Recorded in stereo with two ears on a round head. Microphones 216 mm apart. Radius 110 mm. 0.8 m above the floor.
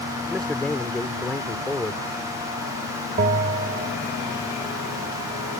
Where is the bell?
35° right (ahead or behind).